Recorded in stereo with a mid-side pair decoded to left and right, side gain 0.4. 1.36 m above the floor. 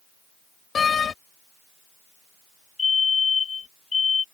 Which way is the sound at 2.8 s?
45° left.